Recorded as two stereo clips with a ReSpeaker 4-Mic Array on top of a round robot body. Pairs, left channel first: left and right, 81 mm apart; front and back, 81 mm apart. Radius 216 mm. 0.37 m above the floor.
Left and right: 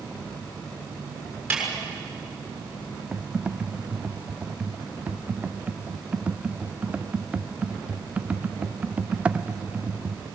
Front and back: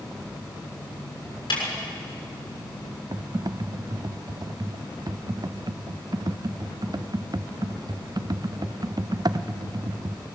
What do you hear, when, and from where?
1.5 s a snare drum: 20° right, 6.5 m
3.1 s typing on a keyboard: 165° right, 0.8 m